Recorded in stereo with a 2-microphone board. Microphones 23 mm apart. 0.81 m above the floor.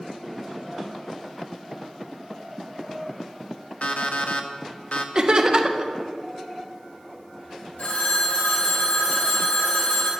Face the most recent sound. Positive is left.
turn(degrees=80)